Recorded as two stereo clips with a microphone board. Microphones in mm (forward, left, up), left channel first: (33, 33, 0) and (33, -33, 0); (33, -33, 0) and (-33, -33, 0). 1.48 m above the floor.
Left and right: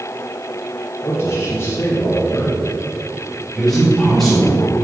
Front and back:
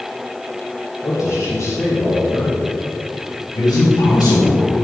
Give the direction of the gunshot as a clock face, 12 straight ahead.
I don't hear a gunshot.